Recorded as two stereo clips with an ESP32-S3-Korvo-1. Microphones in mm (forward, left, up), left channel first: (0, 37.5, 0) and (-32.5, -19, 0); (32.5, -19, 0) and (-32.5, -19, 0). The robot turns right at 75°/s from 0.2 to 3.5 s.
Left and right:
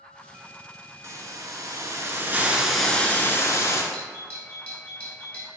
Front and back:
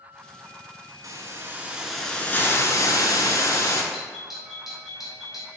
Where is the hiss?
160° right, 0.7 m; by 3.8 s 25° left, 0.7 m.